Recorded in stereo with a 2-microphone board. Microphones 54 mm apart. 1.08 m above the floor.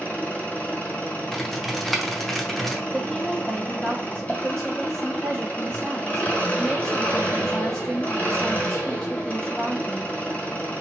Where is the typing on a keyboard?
5° left (ahead or behind), 0.7 m.